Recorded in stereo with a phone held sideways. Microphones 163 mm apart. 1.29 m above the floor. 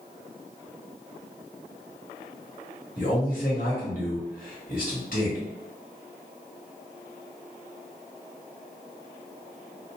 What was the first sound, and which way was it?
A man speaking, 60° left (ahead or behind).